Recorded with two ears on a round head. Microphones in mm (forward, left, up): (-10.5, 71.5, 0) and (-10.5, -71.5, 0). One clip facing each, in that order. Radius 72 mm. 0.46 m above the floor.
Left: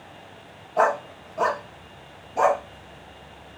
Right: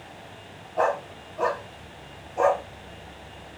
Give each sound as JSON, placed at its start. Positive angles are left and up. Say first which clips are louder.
{"t": 0.8, "sound": "a dog barking", "louder": "left 3 dB", "side_deg": 85, "distance_m": 0.8}